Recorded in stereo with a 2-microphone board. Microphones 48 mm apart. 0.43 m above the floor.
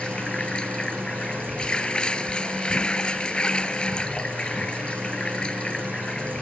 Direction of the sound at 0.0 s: 20° left (ahead or behind).